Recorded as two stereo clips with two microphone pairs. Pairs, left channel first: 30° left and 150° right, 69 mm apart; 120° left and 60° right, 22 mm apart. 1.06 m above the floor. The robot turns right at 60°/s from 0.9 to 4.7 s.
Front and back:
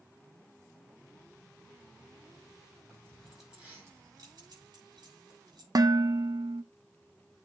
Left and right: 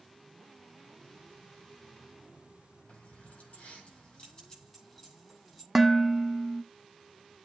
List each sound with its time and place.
2.9 s keys jangling: 95° left, 7 m; by 5.7 s 155° right, 7 m
5.8 s dishes clattering: 135° right, 0.6 m